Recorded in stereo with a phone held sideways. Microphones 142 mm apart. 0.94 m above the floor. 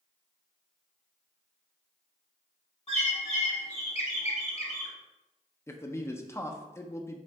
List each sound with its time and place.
2.9 s a bird: 50° left (ahead or behind), 1.1 m
5.7 s a man speaking: 20° left (ahead or behind), 0.6 m